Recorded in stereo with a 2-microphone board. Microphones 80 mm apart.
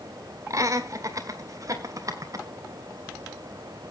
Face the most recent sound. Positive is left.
turn(degrees=-50)  # may be behind; listen again after turning